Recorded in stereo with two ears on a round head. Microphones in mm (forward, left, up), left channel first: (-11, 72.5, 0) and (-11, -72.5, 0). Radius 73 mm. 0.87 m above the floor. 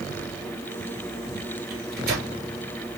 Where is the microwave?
65° right (ahead or behind), 2.5 m.